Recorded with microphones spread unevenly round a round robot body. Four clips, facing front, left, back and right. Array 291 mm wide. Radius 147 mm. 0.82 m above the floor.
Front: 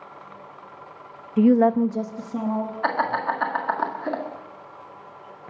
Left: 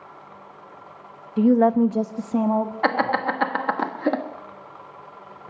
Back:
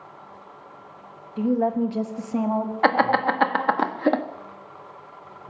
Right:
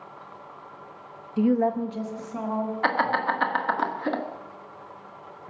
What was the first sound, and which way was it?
A woman speaking, 20° left.